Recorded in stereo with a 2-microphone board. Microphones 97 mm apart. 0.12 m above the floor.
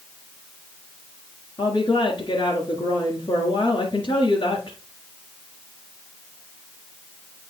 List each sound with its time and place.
1.6 s a woman speaking: 50° left (ahead or behind), 1.9 m